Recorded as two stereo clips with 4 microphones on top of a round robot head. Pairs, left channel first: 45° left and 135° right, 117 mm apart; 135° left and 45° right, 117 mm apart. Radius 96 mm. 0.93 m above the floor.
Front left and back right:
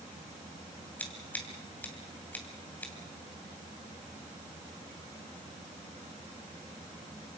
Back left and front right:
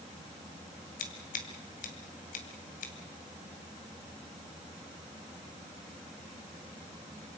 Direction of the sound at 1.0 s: 125° left.